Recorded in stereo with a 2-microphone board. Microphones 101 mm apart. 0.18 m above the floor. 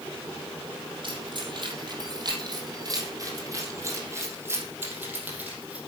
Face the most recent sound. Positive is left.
turn(degrees=-10)  # may be behind; listen again after turning